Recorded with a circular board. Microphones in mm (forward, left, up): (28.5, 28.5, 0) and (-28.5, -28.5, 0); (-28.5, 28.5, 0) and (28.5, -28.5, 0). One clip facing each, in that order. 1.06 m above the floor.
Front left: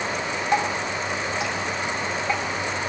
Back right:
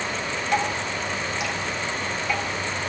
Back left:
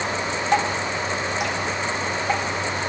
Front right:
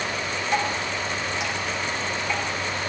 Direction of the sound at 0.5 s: 105° left.